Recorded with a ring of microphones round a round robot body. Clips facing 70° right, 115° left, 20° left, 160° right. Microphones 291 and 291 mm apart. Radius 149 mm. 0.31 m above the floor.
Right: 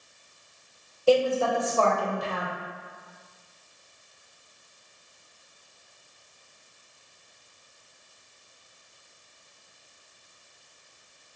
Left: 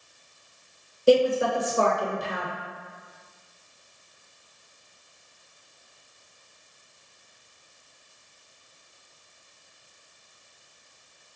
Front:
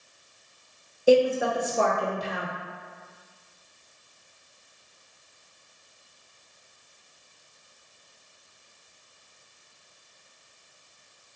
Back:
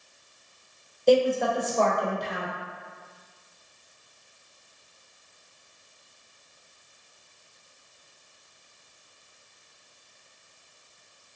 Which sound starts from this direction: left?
A woman speaking, at 1.1 s.